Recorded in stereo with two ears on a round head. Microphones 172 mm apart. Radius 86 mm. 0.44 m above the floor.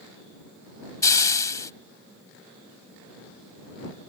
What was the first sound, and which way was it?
A hiss, 20° left (ahead or behind).